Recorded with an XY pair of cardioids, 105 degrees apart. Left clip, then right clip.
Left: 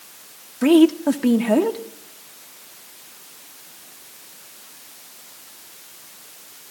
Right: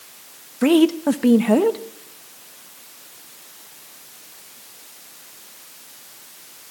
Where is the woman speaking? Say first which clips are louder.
Left 1 dB; 15° right, 0.9 m.